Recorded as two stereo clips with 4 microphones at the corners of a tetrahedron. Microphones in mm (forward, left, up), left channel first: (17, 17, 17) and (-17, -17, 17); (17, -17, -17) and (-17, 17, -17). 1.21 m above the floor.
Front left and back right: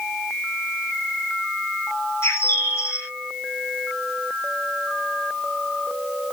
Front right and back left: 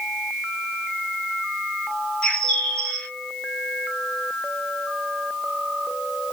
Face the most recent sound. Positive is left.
turn(degrees=35)